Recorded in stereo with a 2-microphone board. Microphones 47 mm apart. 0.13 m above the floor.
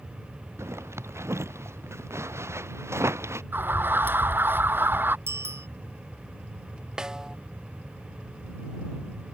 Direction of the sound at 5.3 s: 65° right (ahead or behind).